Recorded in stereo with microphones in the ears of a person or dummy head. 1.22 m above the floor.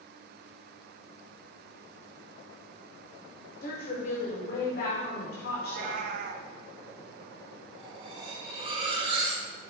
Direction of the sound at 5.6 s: 50° right (ahead or behind).